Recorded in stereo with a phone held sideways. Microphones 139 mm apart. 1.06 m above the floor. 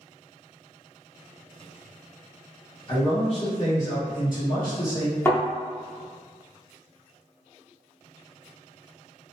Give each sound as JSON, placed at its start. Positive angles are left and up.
{"t": 2.9, "sound": "a man speaking", "side_deg": 35, "distance_m": 1.2}
{"t": 5.2, "sound": "a thud", "side_deg": 15, "distance_m": 0.8}